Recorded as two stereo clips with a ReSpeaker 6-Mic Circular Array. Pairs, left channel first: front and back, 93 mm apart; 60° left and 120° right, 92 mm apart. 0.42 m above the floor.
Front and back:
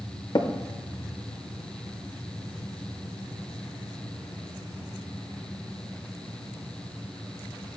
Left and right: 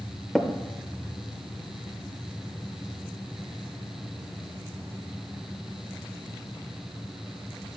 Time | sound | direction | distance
0.3 | tapping | 25° right | 0.7 m